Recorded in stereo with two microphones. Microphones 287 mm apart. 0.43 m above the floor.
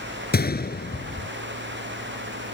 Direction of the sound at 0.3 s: 35° left (ahead or behind).